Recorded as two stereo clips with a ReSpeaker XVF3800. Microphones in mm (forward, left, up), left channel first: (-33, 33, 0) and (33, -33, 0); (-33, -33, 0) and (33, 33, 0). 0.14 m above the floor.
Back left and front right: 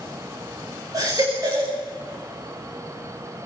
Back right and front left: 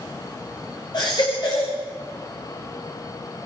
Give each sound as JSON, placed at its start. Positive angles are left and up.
{"t": 0.9, "sound": "a baby crying", "azimuth_deg": -95, "distance_m": 7.0}